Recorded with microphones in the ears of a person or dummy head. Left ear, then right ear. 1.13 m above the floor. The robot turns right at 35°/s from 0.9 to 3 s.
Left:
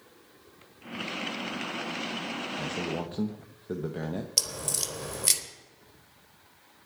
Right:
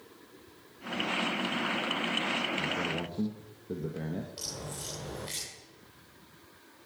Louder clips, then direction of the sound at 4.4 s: Left 10 dB; 80° left.